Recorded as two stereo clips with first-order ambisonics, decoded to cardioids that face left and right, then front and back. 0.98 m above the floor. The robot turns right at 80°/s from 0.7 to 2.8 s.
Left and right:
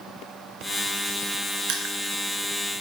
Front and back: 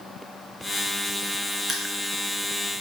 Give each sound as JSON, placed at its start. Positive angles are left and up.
{"t": 1.7, "sound": "crushing", "azimuth_deg": -110, "distance_m": 2.0}